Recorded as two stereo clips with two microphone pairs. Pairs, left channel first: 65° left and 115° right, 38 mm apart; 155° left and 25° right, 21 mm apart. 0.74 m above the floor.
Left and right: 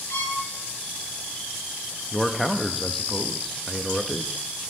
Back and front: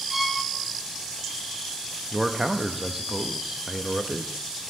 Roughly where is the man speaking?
Ahead.